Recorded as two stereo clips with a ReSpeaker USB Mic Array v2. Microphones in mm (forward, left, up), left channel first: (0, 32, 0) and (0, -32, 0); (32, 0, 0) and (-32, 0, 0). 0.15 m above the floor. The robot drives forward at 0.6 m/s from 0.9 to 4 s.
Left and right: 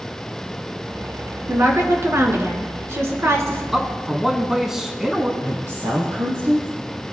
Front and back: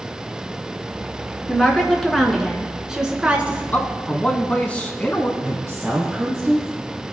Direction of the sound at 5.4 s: 100° right.